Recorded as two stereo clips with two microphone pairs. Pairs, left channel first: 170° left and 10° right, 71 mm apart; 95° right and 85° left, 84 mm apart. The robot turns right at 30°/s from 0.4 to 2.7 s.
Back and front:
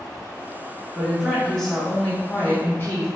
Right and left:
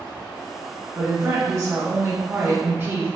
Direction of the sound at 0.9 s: 70° left.